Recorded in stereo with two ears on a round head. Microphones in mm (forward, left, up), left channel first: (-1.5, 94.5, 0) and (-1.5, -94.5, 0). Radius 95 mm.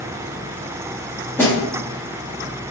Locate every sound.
1.4 s a snare drum: 10° left (ahead or behind), 1.3 m